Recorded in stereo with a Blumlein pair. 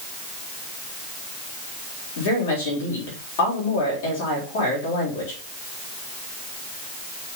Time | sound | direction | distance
2.2 | a woman speaking | 55° left | 4 m